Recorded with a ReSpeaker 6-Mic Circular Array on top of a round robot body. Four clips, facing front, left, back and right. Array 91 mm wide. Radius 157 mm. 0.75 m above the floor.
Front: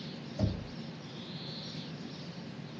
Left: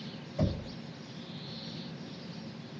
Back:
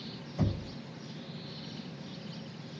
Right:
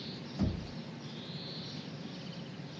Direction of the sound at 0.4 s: 145° left.